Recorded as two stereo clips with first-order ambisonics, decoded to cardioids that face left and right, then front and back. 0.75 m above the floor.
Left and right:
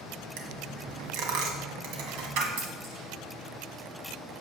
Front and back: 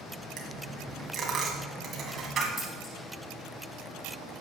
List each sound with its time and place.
0.4 s a dropped coin: 115° right, 1.7 m
2.6 s scissors: 70° right, 4 m